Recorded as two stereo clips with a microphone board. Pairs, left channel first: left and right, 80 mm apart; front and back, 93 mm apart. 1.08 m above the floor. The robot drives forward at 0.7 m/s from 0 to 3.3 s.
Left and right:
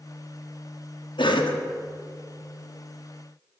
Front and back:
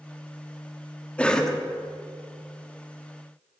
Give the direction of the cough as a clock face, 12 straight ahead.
9 o'clock.